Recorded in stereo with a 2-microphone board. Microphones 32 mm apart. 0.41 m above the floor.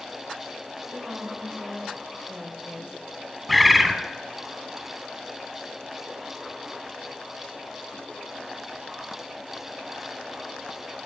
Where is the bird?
5° right (ahead or behind), 0.9 m.